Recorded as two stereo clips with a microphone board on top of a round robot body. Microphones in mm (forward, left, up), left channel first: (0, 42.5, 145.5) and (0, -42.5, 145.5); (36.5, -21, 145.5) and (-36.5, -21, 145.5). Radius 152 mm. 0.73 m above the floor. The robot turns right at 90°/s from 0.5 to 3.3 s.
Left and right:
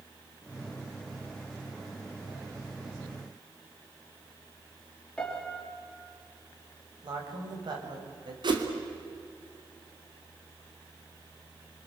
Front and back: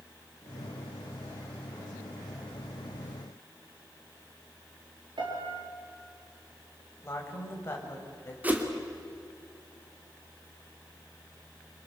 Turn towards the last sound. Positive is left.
turn(degrees=-115)